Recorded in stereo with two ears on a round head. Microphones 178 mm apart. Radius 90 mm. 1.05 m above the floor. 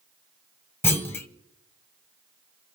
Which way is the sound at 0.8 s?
10° left (ahead or behind).